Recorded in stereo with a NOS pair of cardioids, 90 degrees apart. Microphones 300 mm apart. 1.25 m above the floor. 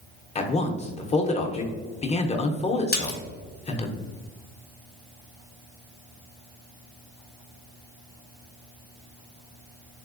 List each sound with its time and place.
0.3 s a man speaking: 20° left, 0.6 m
2.9 s a splash: 35° left, 0.9 m